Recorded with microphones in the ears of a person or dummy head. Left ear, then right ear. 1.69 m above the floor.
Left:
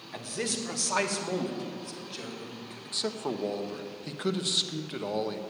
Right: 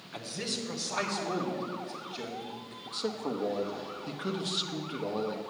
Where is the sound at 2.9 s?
15° left (ahead or behind), 0.8 m.